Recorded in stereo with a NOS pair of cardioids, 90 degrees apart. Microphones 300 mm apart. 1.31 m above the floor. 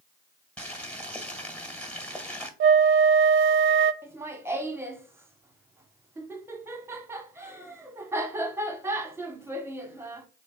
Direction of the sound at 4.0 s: 10° right.